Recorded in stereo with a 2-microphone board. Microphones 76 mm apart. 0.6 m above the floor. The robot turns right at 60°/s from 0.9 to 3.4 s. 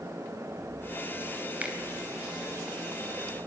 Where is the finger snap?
20° right (ahead or behind), 3 m; by 1.8 s 10° right (ahead or behind), 3 m.